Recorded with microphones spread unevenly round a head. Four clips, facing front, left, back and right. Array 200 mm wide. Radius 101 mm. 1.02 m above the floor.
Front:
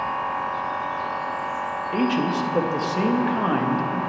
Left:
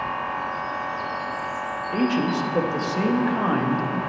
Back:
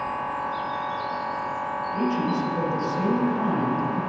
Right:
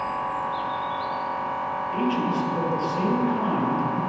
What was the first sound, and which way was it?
A machine running, 75° left.